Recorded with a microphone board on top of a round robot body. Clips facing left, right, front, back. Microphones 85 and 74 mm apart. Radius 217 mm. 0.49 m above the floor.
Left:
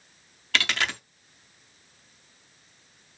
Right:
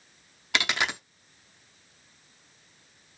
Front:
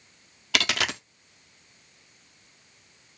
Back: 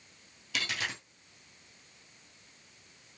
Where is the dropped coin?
15° right, 0.5 m.